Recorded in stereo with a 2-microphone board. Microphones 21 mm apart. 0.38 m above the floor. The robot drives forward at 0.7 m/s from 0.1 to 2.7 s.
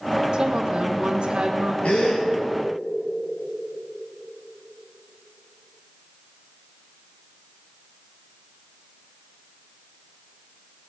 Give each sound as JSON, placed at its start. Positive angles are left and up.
{"t": 0.3, "sound": "a woman speaking", "side_deg": -40, "distance_m": 1.7}
{"t": 1.8, "sound": "a gasp", "side_deg": 75, "distance_m": 4.0}